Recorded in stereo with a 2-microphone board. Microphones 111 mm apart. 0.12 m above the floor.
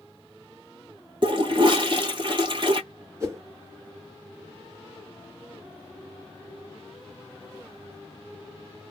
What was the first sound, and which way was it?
A toilet flushing, 50° right (ahead or behind).